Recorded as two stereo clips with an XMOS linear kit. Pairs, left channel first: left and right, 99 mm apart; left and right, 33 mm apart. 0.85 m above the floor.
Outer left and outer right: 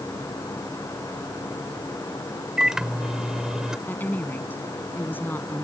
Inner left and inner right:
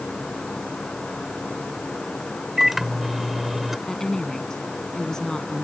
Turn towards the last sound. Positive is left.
turn(degrees=20)  # may be behind; listen again after turning